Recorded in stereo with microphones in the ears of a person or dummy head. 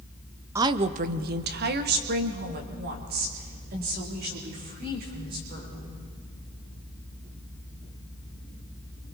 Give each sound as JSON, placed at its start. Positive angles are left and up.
{"t": 0.6, "sound": "a woman speaking", "side_deg": -15, "distance_m": 0.7}